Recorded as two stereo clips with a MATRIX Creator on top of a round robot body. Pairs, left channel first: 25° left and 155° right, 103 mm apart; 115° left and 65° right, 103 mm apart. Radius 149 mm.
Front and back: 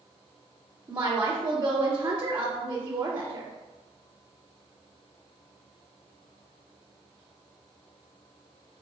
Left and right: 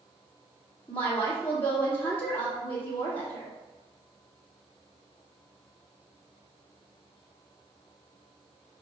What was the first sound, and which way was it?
A woman speaking, 170° left.